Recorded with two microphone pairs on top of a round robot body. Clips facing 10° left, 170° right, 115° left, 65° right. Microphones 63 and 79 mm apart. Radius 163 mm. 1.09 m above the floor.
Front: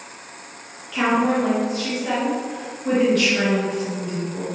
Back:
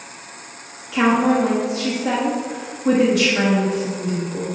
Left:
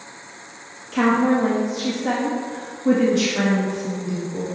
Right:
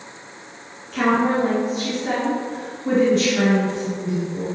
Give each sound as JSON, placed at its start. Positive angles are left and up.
{"t": 0.9, "sound": "a woman speaking", "azimuth_deg": 110, "distance_m": 1.2}